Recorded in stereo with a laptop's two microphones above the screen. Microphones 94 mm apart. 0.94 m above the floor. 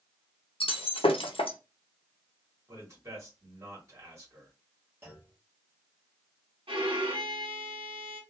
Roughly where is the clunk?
Right.